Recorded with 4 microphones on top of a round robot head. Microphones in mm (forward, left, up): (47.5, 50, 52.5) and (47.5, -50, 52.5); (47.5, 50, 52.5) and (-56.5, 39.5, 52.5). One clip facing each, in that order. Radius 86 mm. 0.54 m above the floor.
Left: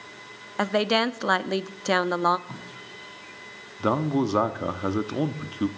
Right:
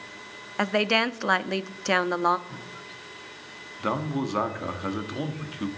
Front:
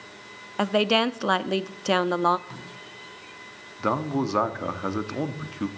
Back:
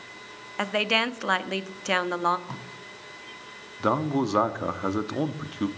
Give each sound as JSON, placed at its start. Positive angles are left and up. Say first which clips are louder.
{"t": 0.6, "sound": "a woman speaking", "louder": "left 1 dB, front 5 dB", "azimuth_deg": 25, "distance_m": 0.6}
{"t": 2.5, "sound": "tape being pulled", "louder": "left 1 dB, back 2 dB", "azimuth_deg": 140, "distance_m": 4.0}
{"t": 3.8, "sound": "a man speaking", "louder": "left 4 dB, back 1 dB", "azimuth_deg": 110, "distance_m": 1.0}